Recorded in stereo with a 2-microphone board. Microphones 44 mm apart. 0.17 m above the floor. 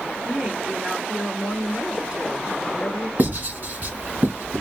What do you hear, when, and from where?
0.2 s a woman speaking: 25° right (ahead or behind), 2.0 m
3.2 s writing: 45° right (ahead or behind), 1.6 m